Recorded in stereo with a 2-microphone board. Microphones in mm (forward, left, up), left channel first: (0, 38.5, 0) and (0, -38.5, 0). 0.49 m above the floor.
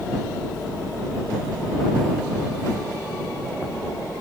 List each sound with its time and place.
Only background noise.